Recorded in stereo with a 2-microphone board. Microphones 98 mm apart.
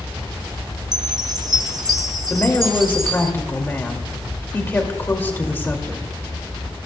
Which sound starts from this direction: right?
A chime, at 0.9 s.